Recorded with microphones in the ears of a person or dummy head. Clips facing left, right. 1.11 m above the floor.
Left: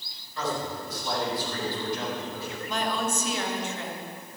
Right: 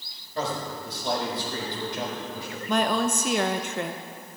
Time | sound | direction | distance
0.3 | a man speaking | 35° right (ahead or behind) | 4.5 m
2.7 | a woman speaking | 45° right (ahead or behind) | 0.7 m